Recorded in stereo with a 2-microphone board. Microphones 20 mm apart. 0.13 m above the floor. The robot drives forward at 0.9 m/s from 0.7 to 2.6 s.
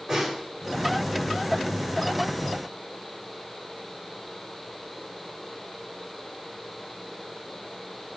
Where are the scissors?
I don't hear scissors.